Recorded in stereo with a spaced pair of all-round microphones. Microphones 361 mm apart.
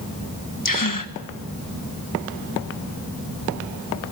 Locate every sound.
0.7 s a gasp: 60° left (ahead or behind), 1.4 m